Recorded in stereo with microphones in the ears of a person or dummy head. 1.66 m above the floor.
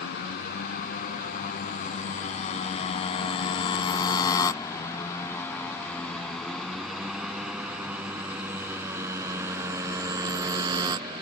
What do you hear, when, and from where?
0.0 s a motorcycle: 55° left (ahead or behind); by 11.2 s 25° right (ahead or behind)